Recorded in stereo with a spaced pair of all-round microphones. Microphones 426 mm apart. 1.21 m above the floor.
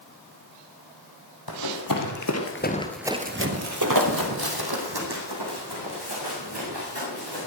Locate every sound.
1.5 s running footsteps: 60° left (ahead or behind), 2.5 m; by 7.5 s 70° right (ahead or behind), 7 m